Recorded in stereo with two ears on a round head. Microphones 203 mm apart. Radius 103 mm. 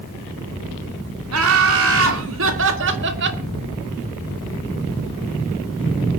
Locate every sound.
1.3 s laughter: 60° right (ahead or behind), 3 m; by 3.4 s 45° right (ahead or behind), 1.8 m